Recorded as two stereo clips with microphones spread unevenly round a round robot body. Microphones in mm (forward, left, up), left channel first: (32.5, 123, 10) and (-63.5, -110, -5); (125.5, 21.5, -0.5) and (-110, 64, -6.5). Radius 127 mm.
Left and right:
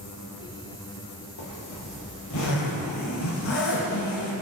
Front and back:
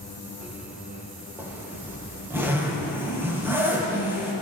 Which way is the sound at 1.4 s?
90° left.